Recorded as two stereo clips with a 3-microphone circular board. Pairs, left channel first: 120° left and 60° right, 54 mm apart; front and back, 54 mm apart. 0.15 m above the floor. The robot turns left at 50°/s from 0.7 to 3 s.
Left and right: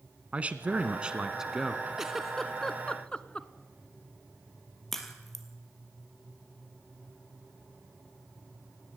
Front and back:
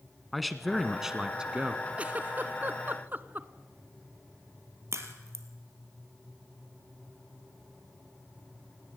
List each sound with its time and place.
0.3 s a man speaking: 90° right, 1.1 m; by 1.9 s 145° right, 1.1 m
2.0 s a giggle: 135° right, 0.7 m; by 3.5 s 175° left, 0.7 m
4.9 s a crack: 155° right, 2.5 m